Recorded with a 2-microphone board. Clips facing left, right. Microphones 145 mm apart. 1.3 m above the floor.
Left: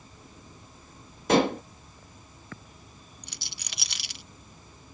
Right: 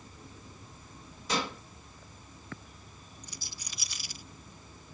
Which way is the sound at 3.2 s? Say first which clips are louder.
Left 1 dB; 70° left (ahead or behind).